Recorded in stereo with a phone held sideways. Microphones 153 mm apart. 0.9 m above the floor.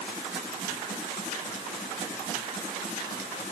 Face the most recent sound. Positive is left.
No sound to turn to.